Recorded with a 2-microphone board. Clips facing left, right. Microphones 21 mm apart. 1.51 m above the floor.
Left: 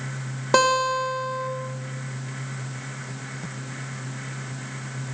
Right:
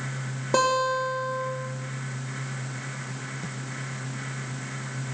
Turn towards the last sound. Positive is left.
turn(degrees=45)  # may be behind; listen again after turning